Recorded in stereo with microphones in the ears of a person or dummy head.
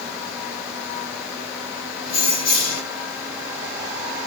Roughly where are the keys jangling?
Left.